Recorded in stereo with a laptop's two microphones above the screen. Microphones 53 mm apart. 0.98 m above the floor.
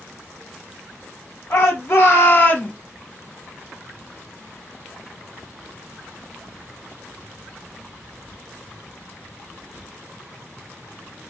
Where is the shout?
55° left (ahead or behind), 1.4 m; by 2.7 s 20° left (ahead or behind), 1.0 m.